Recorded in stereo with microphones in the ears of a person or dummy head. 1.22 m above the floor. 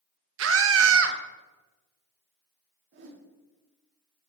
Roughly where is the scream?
Right.